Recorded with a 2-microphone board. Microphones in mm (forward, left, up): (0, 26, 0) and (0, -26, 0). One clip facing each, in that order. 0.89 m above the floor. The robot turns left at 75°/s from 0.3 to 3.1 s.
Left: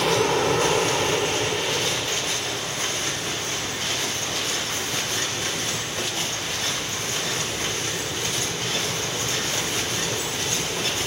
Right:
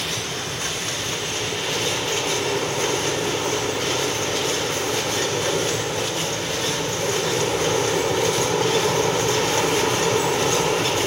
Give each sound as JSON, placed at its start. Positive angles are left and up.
{"t": 0.0, "sound": "an aircraft", "azimuth_deg": 105}